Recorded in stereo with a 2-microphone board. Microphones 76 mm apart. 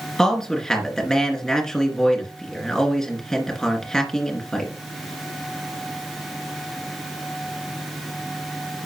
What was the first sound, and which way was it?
A man speaking, 10° left (ahead or behind).